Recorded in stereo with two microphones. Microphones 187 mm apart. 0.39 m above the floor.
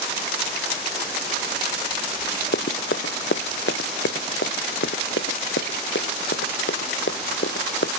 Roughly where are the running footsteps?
Left.